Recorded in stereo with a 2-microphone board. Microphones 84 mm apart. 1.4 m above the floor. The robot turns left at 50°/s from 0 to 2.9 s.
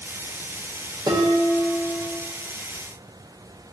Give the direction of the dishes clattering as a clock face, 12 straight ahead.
3 o'clock.